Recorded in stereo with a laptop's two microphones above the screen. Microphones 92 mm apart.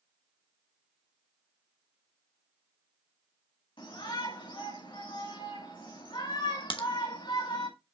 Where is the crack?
70° left (ahead or behind), 1.1 m.